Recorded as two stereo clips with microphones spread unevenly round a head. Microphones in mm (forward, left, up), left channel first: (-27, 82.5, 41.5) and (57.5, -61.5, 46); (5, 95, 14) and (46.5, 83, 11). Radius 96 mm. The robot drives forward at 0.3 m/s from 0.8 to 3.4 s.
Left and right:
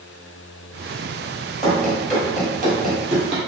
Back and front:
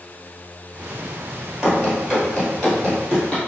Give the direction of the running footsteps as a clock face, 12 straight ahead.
11 o'clock.